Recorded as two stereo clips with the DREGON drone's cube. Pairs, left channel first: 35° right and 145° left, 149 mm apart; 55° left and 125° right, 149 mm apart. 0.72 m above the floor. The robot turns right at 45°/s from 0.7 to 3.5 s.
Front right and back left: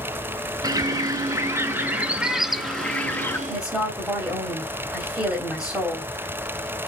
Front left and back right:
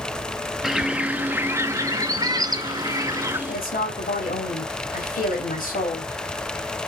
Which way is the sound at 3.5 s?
60° left.